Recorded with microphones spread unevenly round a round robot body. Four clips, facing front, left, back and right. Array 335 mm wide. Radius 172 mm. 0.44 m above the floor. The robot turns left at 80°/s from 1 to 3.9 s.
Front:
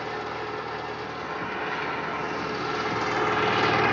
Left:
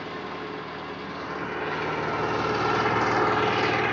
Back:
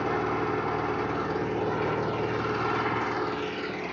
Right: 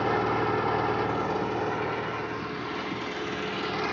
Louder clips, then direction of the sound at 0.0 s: Right 9 dB, back 5 dB; 115° right.